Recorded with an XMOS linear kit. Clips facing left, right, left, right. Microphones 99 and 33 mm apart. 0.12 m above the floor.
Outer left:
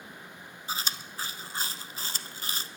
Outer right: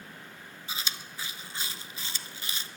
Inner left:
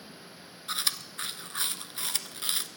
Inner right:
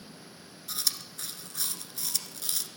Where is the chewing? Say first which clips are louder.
Outer left 4 dB, inner left 3 dB; 40° left (ahead or behind), 0.8 m.